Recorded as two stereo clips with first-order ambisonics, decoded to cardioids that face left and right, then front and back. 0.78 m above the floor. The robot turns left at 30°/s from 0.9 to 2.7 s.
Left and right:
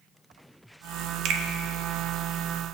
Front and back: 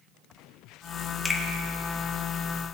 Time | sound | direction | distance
1.2 | a finger snap | 75° right | 1.3 m